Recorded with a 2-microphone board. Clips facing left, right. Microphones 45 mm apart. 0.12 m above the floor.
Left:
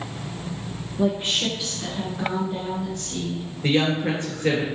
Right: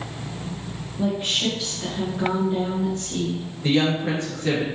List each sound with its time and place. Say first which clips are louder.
1.0 s a woman speaking: left 1 dB; 20° left (ahead or behind), 1.4 m; by 3.5 s 30° right (ahead or behind), 1.4 m
3.6 s a woman speaking: even; 35° left (ahead or behind), 1.9 m